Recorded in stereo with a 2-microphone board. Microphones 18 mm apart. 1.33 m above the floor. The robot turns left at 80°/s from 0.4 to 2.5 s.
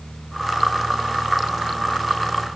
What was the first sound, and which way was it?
Only background noise.